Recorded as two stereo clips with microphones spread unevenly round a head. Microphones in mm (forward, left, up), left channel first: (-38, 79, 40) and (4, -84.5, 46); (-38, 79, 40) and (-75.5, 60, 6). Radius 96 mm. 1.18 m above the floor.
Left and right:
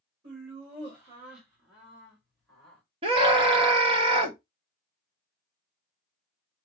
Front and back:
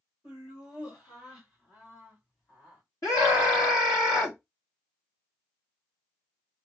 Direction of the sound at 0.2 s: 20° right.